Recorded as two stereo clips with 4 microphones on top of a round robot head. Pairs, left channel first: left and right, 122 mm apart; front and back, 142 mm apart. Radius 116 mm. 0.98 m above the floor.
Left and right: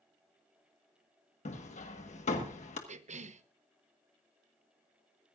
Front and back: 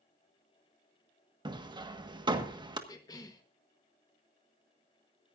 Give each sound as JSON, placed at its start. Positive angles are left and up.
{"t": 1.4, "sound": "hammering", "azimuth_deg": 120, "distance_m": 1.5}
{"t": 2.9, "sound": "a cough", "azimuth_deg": -65, "distance_m": 1.1}